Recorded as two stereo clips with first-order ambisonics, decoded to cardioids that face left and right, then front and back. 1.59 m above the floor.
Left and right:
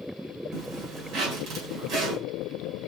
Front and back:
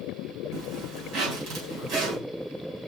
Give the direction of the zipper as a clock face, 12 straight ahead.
5 o'clock.